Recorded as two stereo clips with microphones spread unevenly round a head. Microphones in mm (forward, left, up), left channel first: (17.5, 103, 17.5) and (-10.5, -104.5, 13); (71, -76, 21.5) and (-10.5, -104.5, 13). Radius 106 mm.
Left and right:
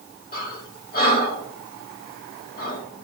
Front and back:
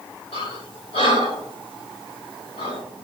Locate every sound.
0.3 s breathing: 35° left, 4 m